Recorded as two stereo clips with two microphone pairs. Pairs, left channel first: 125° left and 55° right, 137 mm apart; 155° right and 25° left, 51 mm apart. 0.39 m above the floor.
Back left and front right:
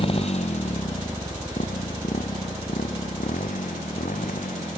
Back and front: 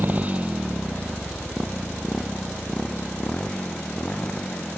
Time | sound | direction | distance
0.0 | a motorcycle | 80° left | ?